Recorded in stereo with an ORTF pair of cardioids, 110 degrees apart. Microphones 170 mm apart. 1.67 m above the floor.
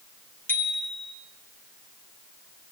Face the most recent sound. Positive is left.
turn(degrees=10)